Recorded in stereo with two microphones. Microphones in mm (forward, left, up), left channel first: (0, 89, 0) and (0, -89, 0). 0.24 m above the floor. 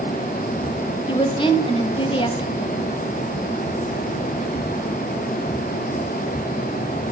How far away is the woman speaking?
About 1.3 m.